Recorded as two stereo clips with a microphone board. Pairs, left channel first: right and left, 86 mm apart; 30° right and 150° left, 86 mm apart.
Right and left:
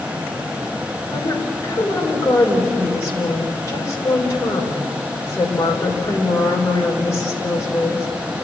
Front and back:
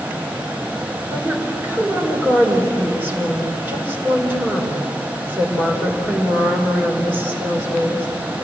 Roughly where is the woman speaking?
Behind right.